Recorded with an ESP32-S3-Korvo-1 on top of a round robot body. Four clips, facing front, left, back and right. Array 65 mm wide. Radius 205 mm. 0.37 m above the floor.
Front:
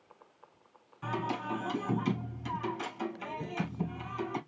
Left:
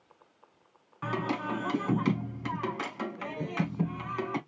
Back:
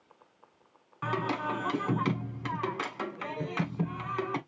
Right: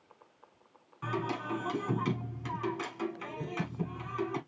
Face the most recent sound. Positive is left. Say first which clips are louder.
# left 3 dB, back 3 dB
turn(degrees=150)